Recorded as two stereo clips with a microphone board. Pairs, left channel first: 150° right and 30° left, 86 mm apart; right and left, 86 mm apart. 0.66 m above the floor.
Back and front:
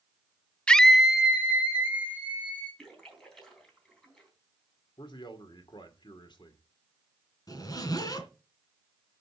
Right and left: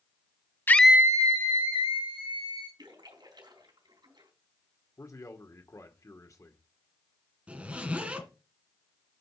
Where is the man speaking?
140° right, 1.8 m.